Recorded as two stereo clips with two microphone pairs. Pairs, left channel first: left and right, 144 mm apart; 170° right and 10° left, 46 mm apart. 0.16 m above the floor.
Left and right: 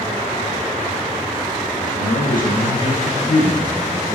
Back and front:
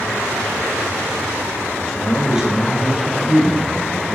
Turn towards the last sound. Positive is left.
turn(degrees=45)